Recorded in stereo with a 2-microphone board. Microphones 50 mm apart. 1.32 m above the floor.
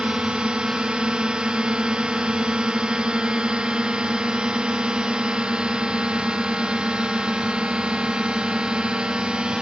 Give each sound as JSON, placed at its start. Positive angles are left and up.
{"t": 0.0, "sound": "a drone", "side_deg": -15}